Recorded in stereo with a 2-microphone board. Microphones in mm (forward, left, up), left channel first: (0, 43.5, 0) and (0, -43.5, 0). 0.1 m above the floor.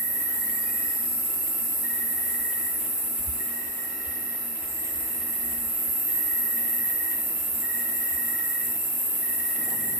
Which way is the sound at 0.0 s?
35° right (ahead or behind).